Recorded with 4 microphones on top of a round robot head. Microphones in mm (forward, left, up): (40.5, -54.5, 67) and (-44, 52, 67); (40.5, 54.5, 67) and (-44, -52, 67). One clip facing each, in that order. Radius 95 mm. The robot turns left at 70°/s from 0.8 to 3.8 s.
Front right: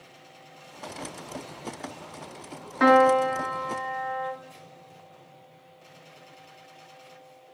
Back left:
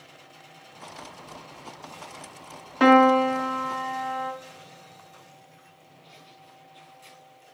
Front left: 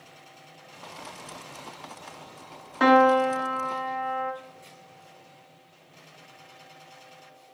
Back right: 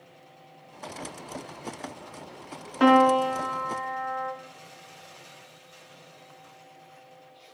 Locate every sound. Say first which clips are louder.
2.8 s a piano: back left 2 dB, even; 170° left, 0.9 m; by 4.3 s 100° left, 0.9 m